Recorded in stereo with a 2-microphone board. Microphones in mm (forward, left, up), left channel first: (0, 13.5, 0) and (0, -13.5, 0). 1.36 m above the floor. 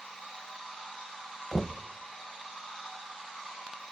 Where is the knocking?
5° left (ahead or behind), 0.7 m.